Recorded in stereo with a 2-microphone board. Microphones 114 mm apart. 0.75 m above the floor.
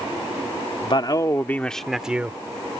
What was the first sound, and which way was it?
A man speaking, 55° left (ahead or behind).